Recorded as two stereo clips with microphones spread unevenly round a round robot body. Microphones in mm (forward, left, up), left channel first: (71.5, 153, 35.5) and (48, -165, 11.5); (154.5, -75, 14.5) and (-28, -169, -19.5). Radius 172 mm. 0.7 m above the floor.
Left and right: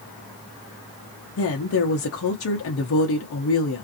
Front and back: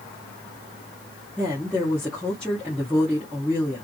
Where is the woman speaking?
120° left, 0.6 m.